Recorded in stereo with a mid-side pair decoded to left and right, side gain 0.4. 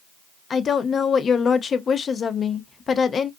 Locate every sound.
0.5 s a woman speaking: 50° left, 0.5 m